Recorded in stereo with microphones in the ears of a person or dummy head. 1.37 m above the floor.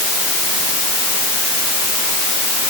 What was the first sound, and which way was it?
Only background noise.